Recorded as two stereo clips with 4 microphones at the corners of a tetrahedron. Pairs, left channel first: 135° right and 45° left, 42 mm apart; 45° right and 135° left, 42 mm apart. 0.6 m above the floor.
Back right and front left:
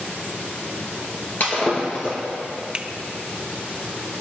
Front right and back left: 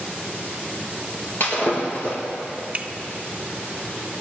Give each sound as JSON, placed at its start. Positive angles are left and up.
{"t": 1.4, "sound": "breaking glass", "azimuth_deg": -90, "distance_m": 3.5}
{"t": 2.7, "sound": "a finger snap", "azimuth_deg": 95, "distance_m": 0.5}